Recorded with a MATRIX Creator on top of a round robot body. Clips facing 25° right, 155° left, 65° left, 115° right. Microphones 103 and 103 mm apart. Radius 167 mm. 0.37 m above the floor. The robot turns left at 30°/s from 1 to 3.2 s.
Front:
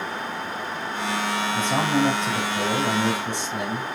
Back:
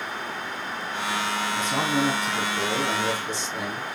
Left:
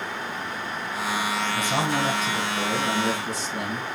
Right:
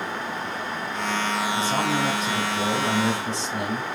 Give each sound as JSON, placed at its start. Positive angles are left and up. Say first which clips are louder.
{"t": 1.5, "sound": "a man speaking", "louder": "front 3 dB, even", "azimuth_deg": -5, "distance_m": 4.0}